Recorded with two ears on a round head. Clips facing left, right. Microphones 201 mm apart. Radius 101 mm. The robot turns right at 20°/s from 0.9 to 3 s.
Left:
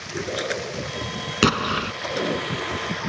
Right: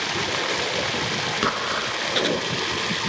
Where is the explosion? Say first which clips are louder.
Left 10 dB; 40° left (ahead or behind); by 1.9 s 50° left (ahead or behind).